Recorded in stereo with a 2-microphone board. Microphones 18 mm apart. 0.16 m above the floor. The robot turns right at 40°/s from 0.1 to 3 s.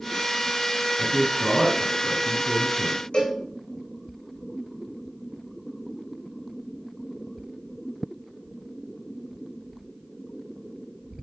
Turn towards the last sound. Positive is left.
turn(degrees=55)  # may be behind; listen again after turning